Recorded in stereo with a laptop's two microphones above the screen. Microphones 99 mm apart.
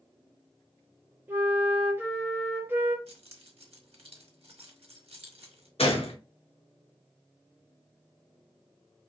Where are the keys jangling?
85° right, 0.9 m.